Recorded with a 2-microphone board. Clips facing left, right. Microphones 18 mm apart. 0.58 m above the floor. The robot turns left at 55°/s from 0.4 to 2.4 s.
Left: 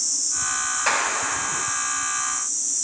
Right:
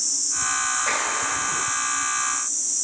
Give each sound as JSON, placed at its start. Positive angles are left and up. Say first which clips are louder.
{"t": 0.9, "sound": "a clap", "louder": "left 1 dB", "azimuth_deg": 60, "distance_m": 3.0}